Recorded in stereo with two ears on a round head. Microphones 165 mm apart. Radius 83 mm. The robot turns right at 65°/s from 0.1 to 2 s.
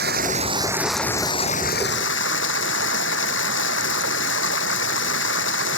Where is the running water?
55° right; by 5.8 s 70° left.